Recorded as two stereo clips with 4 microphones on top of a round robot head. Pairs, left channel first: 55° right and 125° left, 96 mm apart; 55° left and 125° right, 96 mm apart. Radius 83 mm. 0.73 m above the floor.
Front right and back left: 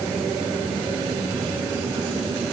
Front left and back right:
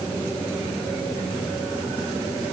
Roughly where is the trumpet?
No trumpet in this recording.